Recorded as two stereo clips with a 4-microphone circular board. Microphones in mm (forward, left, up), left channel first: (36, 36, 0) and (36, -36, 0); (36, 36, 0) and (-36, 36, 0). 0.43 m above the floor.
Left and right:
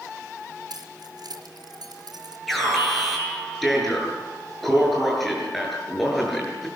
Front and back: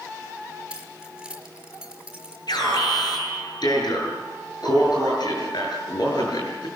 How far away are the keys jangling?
About 4.5 m.